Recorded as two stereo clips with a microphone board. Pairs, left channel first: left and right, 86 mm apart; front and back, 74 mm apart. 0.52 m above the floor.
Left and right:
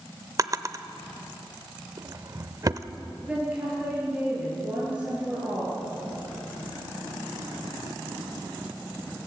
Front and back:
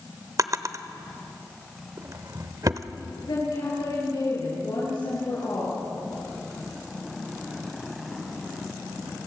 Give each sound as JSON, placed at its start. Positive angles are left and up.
{"t": 0.4, "sound": "a drawer", "azimuth_deg": -140, "distance_m": 0.8}
{"t": 3.2, "sound": "a woman speaking", "azimuth_deg": -15, "distance_m": 9.0}